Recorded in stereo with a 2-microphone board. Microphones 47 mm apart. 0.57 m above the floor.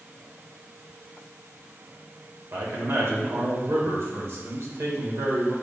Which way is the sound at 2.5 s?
65° right (ahead or behind).